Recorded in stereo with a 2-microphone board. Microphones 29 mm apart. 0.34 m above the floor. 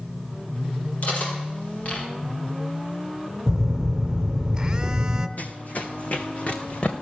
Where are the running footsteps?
60° left (ahead or behind), 1.0 m; by 6.9 s 45° left (ahead or behind), 2 m.